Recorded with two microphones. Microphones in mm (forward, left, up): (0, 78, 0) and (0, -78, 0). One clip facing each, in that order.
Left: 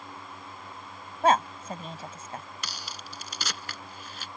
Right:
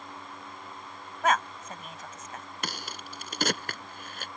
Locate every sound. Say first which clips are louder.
1.2 s a woman speaking: left 4 dB; 30° left (ahead or behind)
2.6 s a crack: right 3 dB; 55° right (ahead or behind)